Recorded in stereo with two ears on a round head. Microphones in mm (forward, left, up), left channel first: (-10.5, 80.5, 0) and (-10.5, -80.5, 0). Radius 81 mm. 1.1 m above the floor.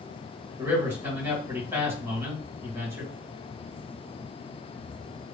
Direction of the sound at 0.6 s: 15° right (ahead or behind).